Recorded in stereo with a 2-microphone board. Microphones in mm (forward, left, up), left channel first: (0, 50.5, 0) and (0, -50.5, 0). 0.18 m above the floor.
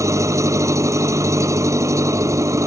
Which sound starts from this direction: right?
An engine running, at 0.0 s.